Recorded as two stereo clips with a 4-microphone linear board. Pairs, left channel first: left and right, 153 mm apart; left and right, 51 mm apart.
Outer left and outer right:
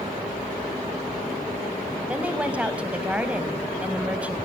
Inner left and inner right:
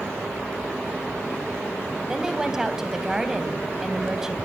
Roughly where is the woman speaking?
Centre.